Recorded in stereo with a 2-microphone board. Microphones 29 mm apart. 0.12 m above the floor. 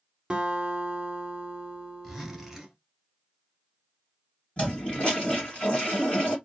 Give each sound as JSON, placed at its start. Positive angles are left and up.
{"t": 0.3, "sound": "a guitar", "side_deg": -30, "distance_m": 0.8}
{"t": 2.0, "sound": "a zipper", "side_deg": -10, "distance_m": 1.1}
{"t": 4.6, "sound": "a toilet flushing", "side_deg": 45, "distance_m": 1.9}